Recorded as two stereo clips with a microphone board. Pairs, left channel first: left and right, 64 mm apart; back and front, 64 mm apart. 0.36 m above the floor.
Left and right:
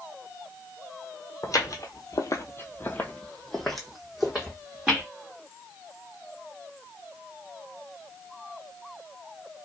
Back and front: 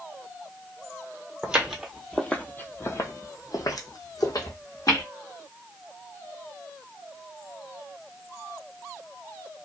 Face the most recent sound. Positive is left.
turn(degrees=-165)